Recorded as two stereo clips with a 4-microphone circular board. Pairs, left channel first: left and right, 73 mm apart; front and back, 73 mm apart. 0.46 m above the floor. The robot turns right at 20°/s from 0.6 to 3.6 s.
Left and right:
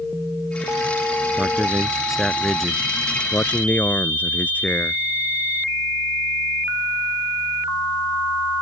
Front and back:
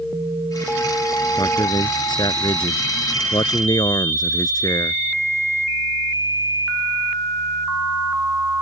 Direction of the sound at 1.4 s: 20° right.